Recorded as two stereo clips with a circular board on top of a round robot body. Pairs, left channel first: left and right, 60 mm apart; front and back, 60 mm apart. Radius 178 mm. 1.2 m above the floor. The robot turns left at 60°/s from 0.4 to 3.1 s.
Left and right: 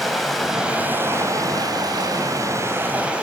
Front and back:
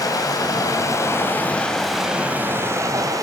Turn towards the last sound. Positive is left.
turn(degrees=-165)